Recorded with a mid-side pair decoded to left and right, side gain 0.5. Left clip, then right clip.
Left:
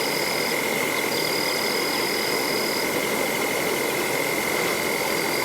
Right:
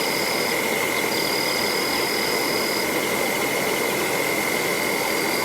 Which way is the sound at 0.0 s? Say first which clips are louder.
Right 1 dB; 10° right.